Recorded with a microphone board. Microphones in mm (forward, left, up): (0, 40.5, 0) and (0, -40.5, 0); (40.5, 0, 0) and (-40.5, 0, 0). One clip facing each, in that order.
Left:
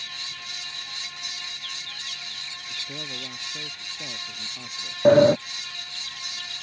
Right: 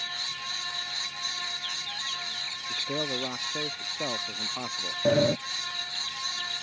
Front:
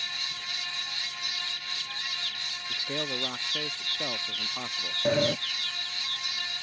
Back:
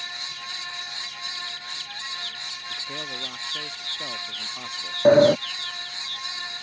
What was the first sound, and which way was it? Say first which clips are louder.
A man speaking: right 8 dB, front 3 dB; 70° right.